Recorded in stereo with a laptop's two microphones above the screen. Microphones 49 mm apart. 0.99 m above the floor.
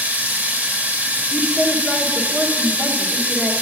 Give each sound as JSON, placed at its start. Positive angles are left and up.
{"t": 0.0, "sound": "running water", "side_deg": -35, "distance_m": 1.0}
{"t": 1.3, "sound": "a woman speaking", "side_deg": -20, "distance_m": 1.1}